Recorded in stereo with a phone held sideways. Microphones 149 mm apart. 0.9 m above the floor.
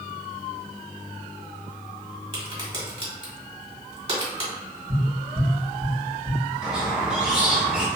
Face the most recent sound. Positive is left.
turn(degrees=-5)  # may be behind; listen again after turning